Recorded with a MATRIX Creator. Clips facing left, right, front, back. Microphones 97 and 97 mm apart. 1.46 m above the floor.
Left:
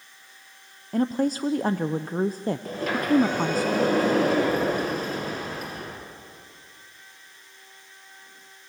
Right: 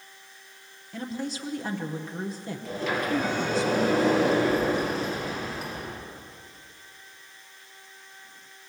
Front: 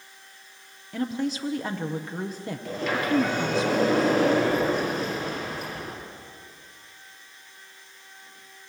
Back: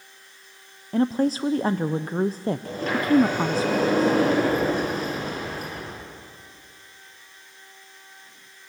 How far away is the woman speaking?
About 0.6 m.